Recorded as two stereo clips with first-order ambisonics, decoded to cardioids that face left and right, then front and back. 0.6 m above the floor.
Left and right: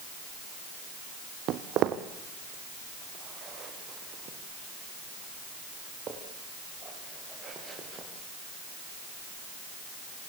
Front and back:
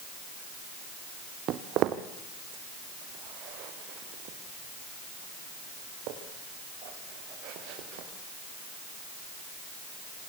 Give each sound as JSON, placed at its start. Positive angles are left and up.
{"t": 1.5, "sound": "footsteps", "azimuth_deg": -135, "distance_m": 1.7}